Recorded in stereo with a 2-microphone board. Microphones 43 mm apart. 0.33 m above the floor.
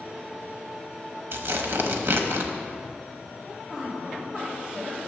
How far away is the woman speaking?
About 1.8 m.